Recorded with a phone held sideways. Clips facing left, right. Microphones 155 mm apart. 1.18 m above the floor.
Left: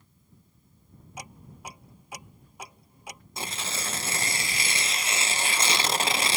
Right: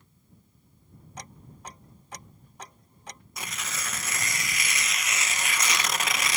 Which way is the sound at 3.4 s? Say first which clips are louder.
Left 3 dB; 30° left (ahead or behind).